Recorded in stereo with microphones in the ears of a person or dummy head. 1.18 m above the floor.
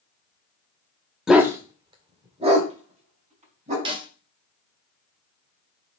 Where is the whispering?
No whispering in this recording.